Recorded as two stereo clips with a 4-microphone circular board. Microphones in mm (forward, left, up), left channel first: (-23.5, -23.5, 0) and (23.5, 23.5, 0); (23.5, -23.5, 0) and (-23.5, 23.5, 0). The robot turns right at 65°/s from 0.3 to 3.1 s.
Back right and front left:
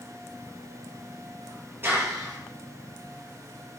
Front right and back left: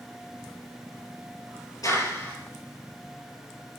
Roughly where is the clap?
Ahead.